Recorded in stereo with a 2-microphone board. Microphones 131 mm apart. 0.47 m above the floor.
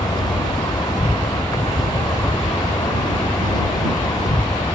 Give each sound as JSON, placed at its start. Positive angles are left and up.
{"t": 0.0, "sound": "an insect", "side_deg": 35}